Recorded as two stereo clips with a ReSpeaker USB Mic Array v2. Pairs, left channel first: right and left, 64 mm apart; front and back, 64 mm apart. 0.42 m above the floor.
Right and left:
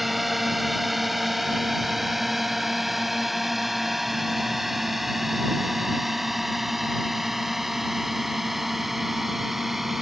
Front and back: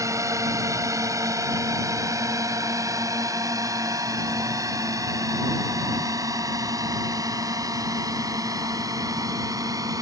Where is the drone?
Straight behind; by 10.0 s 175° left.